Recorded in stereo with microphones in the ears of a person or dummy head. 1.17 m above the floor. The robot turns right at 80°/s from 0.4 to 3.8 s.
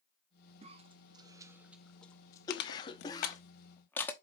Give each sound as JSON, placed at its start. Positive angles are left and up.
{"t": 0.6, "sound": "a cough", "side_deg": -25, "distance_m": 0.6}
{"t": 2.5, "sound": "crushing", "side_deg": 60, "distance_m": 1.0}